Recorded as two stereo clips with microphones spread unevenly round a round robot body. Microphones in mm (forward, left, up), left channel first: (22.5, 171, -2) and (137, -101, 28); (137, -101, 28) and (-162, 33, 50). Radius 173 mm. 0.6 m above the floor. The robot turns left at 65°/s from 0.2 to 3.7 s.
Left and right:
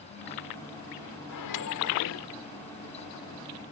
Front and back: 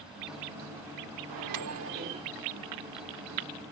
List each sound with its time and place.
1.3 s a microwave: 140° left; by 2.3 s 75° left